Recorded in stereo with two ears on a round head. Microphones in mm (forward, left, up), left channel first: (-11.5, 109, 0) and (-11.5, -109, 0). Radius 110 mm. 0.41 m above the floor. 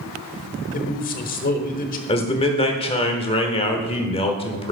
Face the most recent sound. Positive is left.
turn(degrees=25)  # may be behind; listen again after turning